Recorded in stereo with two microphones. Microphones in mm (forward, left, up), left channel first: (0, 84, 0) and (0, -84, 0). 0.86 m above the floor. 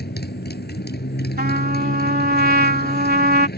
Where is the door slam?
No door slam in this recording.